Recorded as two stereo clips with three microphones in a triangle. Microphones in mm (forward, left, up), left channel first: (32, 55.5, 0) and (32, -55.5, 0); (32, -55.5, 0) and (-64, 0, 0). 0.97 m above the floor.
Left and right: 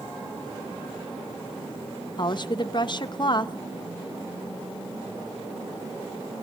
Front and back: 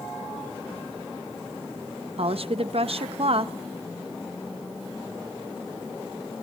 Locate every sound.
2.2 s a woman speaking: 130° left, 0.7 m